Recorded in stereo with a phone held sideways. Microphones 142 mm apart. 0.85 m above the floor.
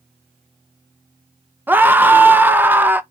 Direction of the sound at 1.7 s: 15° right (ahead or behind).